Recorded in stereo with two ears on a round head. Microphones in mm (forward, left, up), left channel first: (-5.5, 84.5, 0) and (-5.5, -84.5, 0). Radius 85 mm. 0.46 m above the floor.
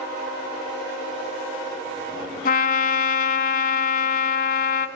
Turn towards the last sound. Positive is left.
turn(degrees=45)  # may be behind; listen again after turning